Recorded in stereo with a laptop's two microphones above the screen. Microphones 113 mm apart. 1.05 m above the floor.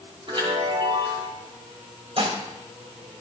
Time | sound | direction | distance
0.3 | a chime | 50° right (ahead or behind) | 4.5 m
2.2 | dishes clattering | 55° right (ahead or behind) | 3 m